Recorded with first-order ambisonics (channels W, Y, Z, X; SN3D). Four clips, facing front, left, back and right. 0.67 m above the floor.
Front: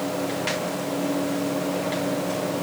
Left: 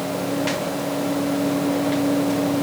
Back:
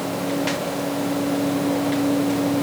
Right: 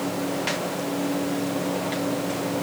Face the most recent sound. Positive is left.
No sound to turn to.